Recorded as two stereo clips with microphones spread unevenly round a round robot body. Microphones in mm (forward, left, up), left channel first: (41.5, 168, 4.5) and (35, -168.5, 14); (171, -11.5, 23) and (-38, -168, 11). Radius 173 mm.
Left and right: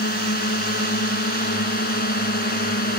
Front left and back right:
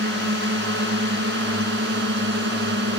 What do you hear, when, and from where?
0.0 s a drone: 155° left